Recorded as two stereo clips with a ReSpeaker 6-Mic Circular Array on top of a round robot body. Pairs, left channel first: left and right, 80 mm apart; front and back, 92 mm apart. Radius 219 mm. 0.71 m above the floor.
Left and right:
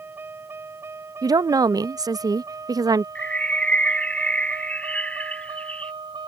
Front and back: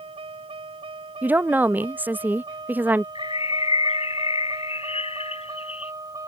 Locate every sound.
0.0 s a vehicle: 155° right; by 6.3 s 125° right
1.2 s a woman speaking: 110° right
3.1 s a bird: 15° left